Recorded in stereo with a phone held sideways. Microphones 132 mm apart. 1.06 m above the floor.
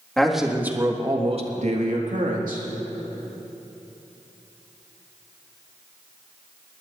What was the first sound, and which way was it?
A man speaking, 5° left (ahead or behind).